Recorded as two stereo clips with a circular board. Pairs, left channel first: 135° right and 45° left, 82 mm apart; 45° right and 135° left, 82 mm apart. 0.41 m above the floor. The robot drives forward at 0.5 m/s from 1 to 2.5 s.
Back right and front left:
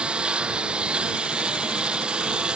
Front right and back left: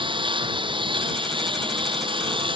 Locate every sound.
0.0 s a lawn mower: 125° left